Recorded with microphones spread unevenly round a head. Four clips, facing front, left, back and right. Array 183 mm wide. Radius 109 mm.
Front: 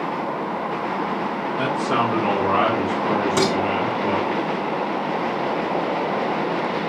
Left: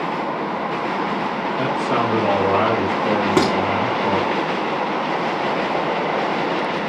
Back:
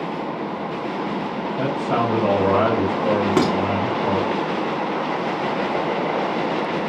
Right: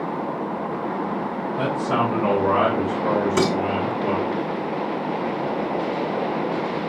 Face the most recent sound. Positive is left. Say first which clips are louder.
# left 5 dB, back 2 dB
turn(degrees=115)